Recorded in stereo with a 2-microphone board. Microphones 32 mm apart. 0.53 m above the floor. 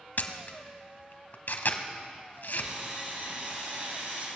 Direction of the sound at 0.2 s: 70° left (ahead or behind).